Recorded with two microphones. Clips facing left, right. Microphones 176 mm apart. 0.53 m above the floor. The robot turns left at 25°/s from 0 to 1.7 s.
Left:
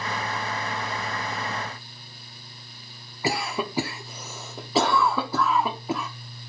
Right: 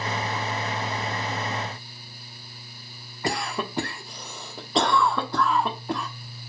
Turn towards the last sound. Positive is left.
turn(degrees=5)  # may be behind; listen again after turning